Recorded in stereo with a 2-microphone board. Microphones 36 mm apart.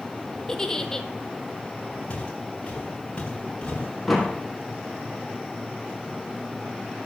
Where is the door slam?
Centre (ahead or behind), 3.5 m.